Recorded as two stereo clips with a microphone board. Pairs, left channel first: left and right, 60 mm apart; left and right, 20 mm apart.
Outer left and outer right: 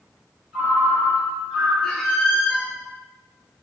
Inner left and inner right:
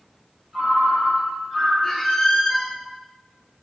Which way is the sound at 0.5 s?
5° right (ahead or behind).